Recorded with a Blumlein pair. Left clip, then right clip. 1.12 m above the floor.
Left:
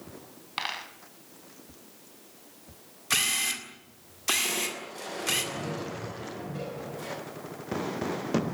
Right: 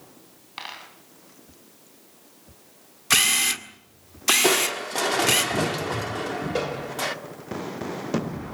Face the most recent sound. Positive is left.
turn(degrees=-40)